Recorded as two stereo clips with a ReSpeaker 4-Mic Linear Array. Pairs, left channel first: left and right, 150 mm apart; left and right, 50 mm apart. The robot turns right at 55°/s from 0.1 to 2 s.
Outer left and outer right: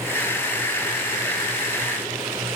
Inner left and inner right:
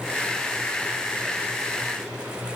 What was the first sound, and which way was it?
Only background noise.